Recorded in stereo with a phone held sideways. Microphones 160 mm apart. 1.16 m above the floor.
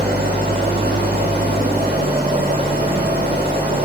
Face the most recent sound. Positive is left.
turn(degrees=-80)